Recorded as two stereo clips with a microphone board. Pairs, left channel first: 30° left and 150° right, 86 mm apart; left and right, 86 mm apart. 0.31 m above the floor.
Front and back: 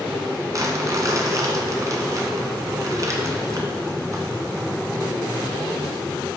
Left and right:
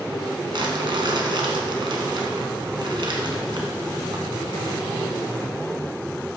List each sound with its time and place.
0.5 s crumpling: 105° right, 1.5 m